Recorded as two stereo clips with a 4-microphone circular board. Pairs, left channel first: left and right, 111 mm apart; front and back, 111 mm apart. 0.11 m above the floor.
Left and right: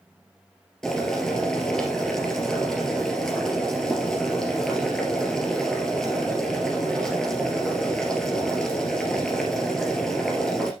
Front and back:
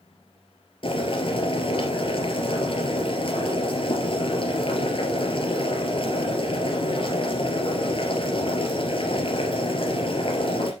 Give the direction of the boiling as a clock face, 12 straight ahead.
12 o'clock.